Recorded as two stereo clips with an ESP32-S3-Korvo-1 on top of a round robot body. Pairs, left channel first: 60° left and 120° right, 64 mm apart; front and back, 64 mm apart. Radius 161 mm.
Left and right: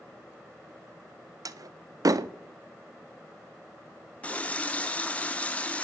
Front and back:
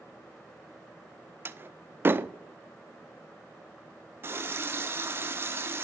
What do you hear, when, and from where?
1.4 s a door slam: 130° right, 0.5 m
4.2 s a running tap: 130° left, 0.9 m